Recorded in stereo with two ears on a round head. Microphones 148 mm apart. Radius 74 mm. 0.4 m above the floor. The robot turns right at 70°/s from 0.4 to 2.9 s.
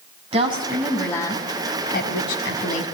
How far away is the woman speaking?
About 3 m.